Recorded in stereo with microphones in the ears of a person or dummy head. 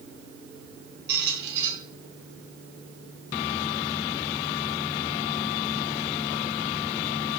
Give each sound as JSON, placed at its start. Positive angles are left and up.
{"t": 1.1, "sound": "a squeak", "side_deg": -55, "distance_m": 3.5}